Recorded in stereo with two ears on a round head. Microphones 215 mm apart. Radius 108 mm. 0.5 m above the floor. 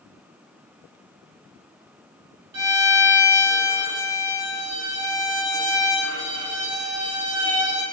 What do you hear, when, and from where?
2.5 s a violin: 80° right, 4 m